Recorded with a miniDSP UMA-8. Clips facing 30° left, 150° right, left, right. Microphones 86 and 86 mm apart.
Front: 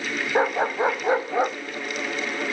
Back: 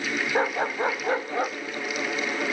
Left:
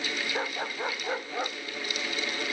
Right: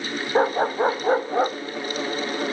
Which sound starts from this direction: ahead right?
A dog barking, at 0.3 s.